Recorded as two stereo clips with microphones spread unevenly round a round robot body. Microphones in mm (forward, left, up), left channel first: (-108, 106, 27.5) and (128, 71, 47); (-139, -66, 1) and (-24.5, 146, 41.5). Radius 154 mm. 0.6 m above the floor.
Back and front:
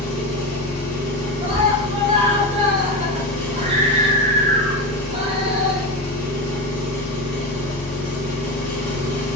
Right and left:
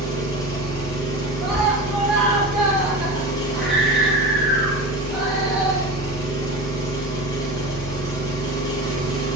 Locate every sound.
0.0 s an engine running: 170° left, 1.6 m
1.4 s a scream: 45° right, 0.6 m